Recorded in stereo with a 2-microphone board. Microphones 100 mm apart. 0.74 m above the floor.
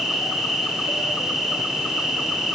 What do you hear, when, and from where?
0.0 s an insect: centre (ahead or behind), 1.2 m